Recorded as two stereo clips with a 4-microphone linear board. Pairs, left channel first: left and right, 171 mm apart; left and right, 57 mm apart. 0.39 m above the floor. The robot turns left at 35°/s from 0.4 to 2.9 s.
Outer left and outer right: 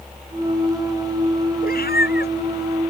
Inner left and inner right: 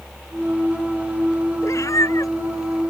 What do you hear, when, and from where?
1.6 s a cat meowing: 60° left (ahead or behind); by 2.9 s 70° left (ahead or behind)